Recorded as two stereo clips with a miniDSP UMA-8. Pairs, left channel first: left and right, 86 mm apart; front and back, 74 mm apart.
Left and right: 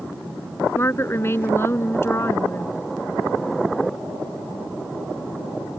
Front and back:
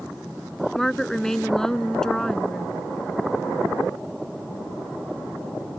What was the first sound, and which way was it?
A woman speaking, 75° left.